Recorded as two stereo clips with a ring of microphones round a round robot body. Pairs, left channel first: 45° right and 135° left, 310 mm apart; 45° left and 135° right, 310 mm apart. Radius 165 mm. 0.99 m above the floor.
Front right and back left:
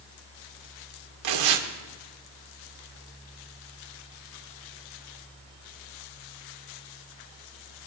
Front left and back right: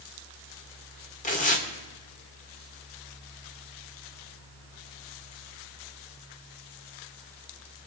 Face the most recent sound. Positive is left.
turn(degrees=110)